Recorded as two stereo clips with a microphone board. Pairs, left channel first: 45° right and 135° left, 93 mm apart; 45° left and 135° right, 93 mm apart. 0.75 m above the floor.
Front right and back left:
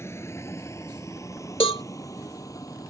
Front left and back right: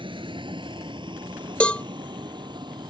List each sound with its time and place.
0.0 s a vehicle: 105° right; by 2.9 s 95° right
1.6 s a cowbell: 30° right